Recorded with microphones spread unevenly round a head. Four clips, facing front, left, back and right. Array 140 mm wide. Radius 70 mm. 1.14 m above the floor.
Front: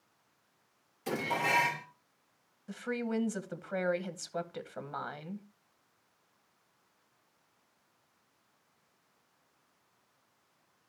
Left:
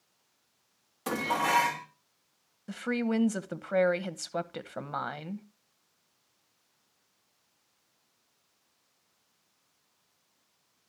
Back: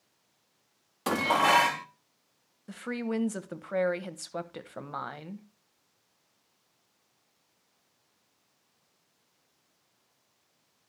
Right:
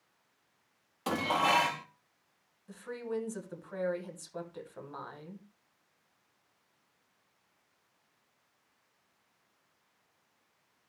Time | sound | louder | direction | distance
1.1 | dishes clattering | even, back 8 dB | 175° right | 1.1 m
2.7 | a woman speaking | left 8 dB, back 2 dB | 100° left | 1.1 m